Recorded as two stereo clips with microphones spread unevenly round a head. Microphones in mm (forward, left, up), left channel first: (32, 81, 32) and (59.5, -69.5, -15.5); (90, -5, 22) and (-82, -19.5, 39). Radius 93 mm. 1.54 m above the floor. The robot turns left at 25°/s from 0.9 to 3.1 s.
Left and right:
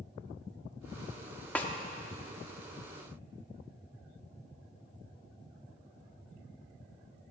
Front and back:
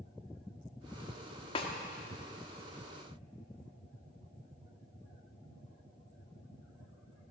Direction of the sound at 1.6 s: 60° left.